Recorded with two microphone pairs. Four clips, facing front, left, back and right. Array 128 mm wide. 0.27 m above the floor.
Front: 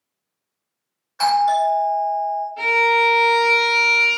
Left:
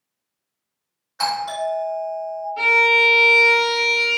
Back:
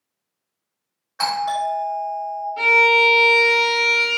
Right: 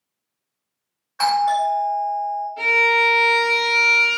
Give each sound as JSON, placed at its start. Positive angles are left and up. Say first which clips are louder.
{"t": 1.2, "sound": "a doorbell", "louder": "right 6 dB, front 6 dB", "azimuth_deg": -145, "distance_m": 1.7}
{"t": 2.6, "sound": "a violin", "louder": "left 2 dB, back 2 dB", "azimuth_deg": 140, "distance_m": 0.9}